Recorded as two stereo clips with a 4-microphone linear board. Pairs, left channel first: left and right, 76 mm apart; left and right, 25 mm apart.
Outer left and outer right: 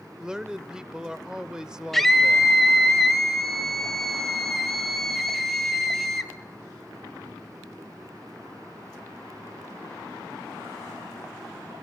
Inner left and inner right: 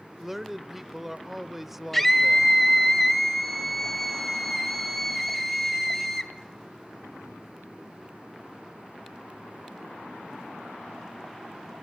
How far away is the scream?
About 2.0 m.